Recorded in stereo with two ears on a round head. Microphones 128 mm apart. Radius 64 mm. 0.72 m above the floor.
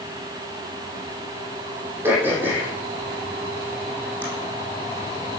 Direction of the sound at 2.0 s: 15° right (ahead or behind).